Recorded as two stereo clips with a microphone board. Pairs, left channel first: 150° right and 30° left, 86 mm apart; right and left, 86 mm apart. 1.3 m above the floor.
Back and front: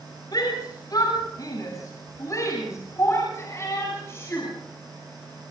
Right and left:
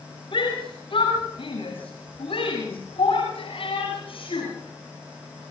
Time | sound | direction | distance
0.3 | a shout | 110° right | 7 m